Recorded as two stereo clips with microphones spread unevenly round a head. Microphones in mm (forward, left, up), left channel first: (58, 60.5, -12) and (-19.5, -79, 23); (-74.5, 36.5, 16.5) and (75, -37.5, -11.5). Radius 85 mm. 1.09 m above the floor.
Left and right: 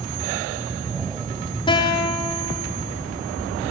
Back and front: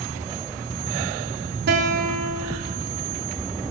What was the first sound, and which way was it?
A guitar, straight ahead.